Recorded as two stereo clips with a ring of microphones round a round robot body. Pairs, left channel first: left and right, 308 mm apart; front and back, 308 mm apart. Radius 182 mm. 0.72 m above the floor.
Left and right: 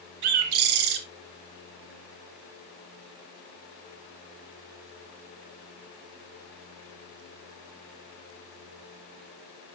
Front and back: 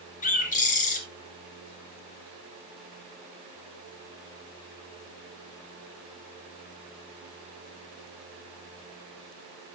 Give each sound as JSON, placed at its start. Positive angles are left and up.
{"t": 0.2, "sound": "a bird", "azimuth_deg": -70, "distance_m": 1.7}